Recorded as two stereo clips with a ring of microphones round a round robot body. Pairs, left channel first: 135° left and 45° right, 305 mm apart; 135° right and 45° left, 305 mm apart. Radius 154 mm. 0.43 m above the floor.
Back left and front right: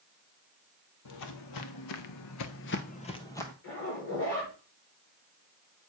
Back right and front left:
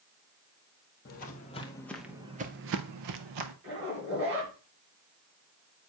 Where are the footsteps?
165° left, 1.0 m; by 3.5 s 50° left, 0.9 m.